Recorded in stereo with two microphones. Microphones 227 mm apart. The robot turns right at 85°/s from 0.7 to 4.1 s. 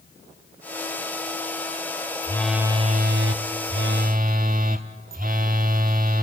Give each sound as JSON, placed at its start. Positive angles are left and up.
{"t": 2.2, "sound": "a phone buzzing", "azimuth_deg": 160, "distance_m": 1.0}